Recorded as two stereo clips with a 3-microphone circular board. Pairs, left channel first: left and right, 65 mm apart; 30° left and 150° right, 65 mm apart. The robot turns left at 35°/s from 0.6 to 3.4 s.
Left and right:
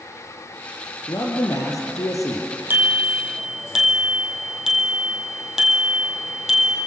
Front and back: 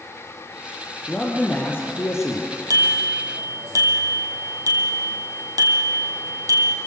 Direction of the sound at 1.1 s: 105° left.